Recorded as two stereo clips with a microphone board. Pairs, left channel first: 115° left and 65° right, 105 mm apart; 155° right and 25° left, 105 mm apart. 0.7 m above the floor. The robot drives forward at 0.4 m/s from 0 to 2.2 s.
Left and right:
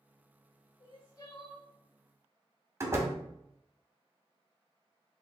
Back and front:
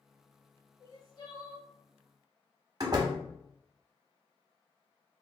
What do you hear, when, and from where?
0.8 s crying: 150° left, 0.8 m; by 1.7 s 160° left, 1.1 m
2.8 s a door slam: 15° right, 0.7 m